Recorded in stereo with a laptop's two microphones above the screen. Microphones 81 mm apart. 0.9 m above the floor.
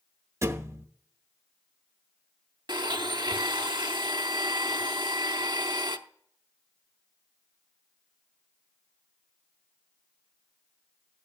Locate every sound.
0.4 s a thud: 35° right (ahead or behind), 0.7 m
2.7 s a blender: 65° right (ahead or behind), 0.7 m